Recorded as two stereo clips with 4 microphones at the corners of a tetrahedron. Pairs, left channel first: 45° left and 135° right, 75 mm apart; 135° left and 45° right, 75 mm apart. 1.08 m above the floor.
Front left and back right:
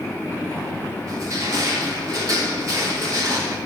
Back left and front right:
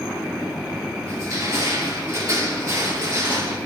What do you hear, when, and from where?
1.1 s crushing: 90° right, 5.5 m